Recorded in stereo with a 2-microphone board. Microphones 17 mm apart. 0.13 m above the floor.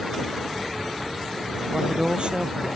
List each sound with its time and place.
1.7 s a woman speaking: 70° right (ahead or behind)